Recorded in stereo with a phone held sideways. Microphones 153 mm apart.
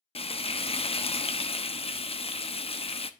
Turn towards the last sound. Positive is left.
turn(degrees=40)  # may be behind; listen again after turning